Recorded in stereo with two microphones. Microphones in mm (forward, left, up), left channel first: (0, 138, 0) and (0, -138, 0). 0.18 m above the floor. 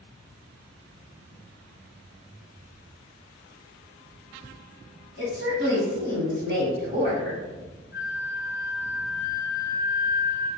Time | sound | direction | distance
5.2 | a woman speaking | 40° right (ahead or behind) | 1.5 m
7.9 | a flute | 20° right (ahead or behind) | 1.3 m